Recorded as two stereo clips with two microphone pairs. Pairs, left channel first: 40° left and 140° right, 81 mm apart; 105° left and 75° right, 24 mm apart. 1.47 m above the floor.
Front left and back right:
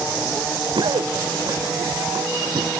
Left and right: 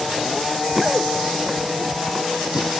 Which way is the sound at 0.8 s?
155° right.